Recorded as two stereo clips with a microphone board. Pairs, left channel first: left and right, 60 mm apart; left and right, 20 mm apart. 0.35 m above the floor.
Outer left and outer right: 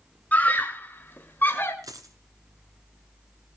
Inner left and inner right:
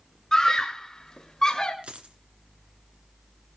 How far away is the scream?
About 1.9 m.